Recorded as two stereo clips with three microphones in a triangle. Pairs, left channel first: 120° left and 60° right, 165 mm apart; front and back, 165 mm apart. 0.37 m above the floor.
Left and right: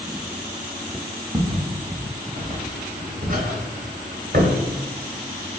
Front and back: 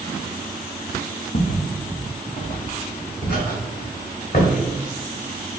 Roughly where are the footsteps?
Ahead.